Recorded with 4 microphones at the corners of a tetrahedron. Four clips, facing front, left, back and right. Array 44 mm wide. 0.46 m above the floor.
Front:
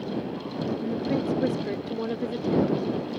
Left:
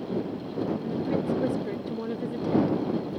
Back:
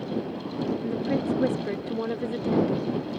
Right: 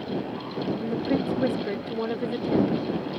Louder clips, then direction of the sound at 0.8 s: Right 2 dB, front 2 dB; 110° right.